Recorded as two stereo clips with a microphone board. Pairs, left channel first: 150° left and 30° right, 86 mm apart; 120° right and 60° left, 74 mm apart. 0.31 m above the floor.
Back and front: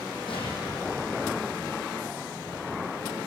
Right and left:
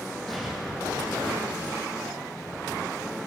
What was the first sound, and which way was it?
An explosion, 150° left.